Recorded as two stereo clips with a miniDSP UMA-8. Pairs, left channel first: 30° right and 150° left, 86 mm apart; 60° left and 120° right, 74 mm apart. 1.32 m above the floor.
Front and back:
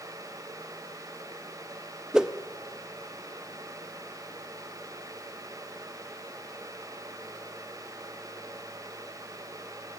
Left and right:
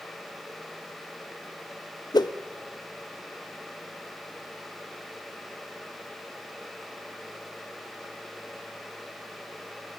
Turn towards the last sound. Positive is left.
turn(degrees=70)